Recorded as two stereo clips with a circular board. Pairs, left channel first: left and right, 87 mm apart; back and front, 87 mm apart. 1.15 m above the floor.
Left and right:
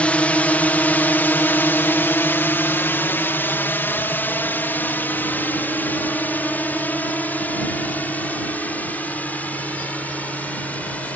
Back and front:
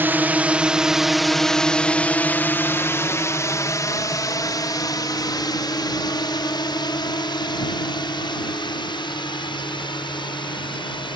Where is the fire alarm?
No fire alarm in this recording.